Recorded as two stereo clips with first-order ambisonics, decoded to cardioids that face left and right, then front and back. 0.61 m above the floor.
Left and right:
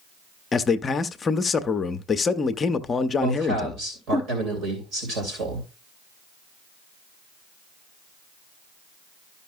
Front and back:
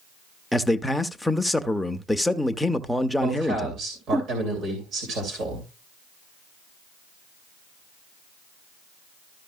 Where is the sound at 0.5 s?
85° left, 0.5 m.